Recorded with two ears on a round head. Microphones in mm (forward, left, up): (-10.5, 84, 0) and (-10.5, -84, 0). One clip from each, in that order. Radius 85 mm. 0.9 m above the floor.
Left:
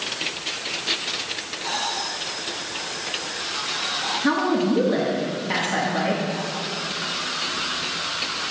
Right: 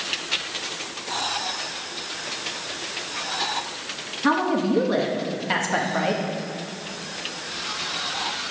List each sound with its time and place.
4.2 s a woman speaking: 30° right (ahead or behind), 1.1 m